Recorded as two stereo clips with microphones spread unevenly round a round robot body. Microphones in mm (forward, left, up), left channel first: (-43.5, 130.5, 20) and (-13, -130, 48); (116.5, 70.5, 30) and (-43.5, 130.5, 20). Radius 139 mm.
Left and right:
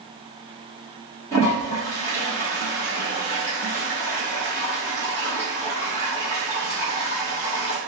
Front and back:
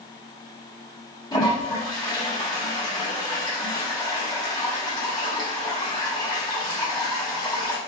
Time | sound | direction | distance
1.3 | a toilet flushing | 35° left | 1.5 m